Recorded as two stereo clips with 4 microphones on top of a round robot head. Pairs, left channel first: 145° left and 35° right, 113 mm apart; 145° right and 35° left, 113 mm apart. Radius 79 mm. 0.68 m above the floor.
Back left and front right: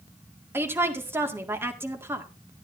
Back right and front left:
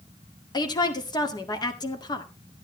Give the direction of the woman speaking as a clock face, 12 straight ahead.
3 o'clock.